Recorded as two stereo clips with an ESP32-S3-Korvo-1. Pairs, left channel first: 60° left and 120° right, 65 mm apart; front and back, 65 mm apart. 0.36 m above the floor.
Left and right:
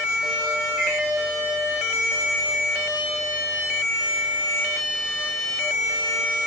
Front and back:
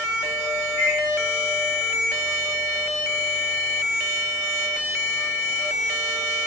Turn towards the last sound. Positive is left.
turn(degrees=145)